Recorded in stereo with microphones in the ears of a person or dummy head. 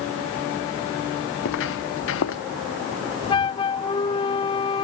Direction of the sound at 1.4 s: 65° left (ahead or behind).